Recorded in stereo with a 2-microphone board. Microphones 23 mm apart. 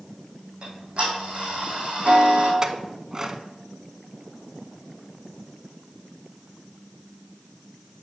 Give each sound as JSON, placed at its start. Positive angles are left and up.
{"t": 0.6, "sound": "ticking", "side_deg": -50, "distance_m": 3.5}
{"t": 2.6, "sound": "a clink", "side_deg": -25, "distance_m": 0.8}